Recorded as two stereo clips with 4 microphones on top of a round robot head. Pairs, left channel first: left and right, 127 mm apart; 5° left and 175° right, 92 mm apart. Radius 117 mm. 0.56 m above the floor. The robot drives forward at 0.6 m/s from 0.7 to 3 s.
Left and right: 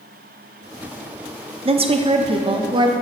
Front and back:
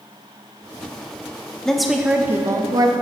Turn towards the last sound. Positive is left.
turn(degrees=-140)